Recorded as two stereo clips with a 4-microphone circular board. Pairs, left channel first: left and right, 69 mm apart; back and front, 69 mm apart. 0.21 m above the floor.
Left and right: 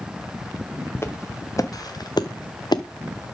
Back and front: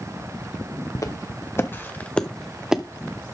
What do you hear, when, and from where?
0.9 s footsteps: 145° left, 1.7 m; by 2.8 s 75° left, 1.2 m